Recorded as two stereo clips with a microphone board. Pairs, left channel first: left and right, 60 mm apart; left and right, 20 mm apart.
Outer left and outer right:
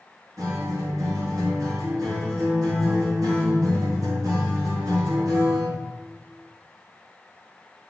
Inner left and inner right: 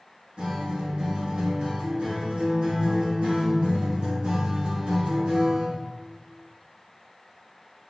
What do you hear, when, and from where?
0.4 s a guitar: 70° right (ahead or behind), 2 m